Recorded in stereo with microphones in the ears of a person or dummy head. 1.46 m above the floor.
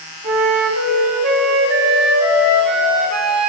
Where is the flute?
65° right (ahead or behind), 4.5 m.